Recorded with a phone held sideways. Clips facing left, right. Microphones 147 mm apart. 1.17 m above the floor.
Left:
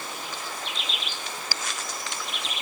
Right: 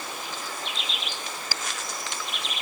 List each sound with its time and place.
Only background noise.